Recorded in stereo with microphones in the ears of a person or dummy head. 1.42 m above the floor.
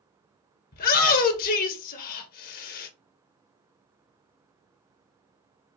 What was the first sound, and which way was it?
A shout, 45° left (ahead or behind).